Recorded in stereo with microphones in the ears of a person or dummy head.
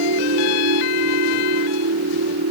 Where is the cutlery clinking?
I don't hear cutlery clinking.